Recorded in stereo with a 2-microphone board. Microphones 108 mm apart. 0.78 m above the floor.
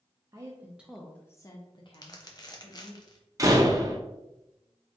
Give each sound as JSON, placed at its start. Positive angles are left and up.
{"t": 0.3, "sound": "a woman speaking", "side_deg": -30, "distance_m": 0.7}
{"t": 1.9, "sound": "crumpling", "side_deg": 40, "distance_m": 0.7}
{"t": 3.4, "sound": "a door slam", "side_deg": -30, "distance_m": 0.7}